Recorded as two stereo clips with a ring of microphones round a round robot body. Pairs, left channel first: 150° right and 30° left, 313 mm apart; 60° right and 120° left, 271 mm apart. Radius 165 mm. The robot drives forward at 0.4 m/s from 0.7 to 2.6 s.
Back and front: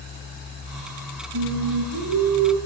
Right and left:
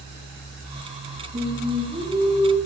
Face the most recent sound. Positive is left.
turn(degrees=55)